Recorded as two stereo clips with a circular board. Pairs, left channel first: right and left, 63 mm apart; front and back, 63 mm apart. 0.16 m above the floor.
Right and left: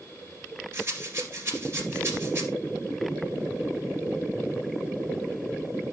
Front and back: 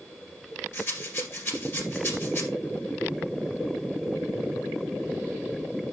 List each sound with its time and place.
0.7 s a rattle: 45° left, 2 m